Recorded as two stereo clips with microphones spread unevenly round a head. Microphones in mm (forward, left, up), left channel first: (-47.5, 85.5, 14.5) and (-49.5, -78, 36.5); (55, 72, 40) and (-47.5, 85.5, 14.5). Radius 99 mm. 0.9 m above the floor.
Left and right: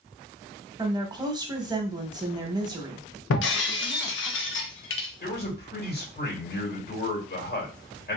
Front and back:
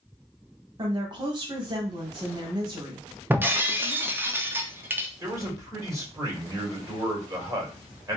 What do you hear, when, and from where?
0.8 s a woman speaking: 160° right, 1.1 m
3.3 s breaking glass: 100° left, 0.8 m
5.2 s a man speaking: 115° left, 2.5 m